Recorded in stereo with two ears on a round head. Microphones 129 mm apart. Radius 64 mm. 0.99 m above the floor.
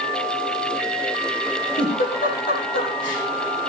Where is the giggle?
65° left (ahead or behind), 9 m.